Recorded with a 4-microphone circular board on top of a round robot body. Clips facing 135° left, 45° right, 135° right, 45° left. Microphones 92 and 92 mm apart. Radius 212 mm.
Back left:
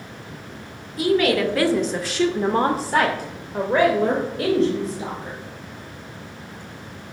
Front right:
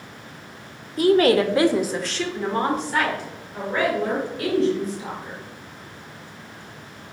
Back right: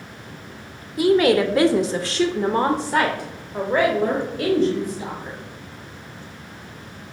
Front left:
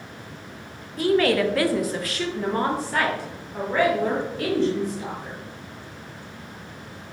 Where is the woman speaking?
60° right, 0.8 m; by 5.4 s 150° left, 1.9 m.